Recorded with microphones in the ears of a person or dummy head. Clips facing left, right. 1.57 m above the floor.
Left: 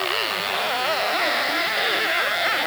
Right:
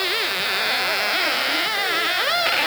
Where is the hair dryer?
I don't hear a hair dryer.